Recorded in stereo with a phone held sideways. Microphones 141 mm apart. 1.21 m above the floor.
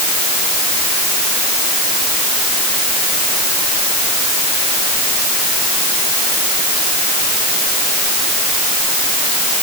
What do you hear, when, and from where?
Only background noise.